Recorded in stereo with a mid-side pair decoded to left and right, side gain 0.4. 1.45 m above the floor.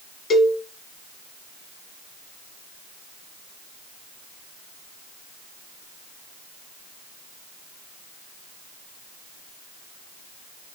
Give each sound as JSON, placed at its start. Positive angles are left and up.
{"t": 0.3, "sound": "a cowbell", "azimuth_deg": 55, "distance_m": 1.3}